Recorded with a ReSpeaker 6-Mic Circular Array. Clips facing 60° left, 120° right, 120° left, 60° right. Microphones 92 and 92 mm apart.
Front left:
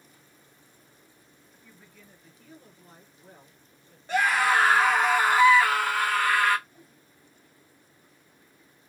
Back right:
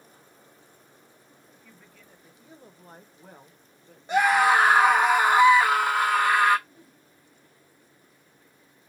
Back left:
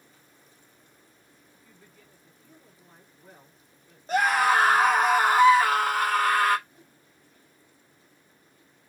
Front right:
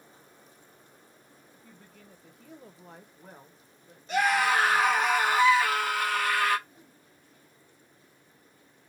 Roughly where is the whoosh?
Behind right.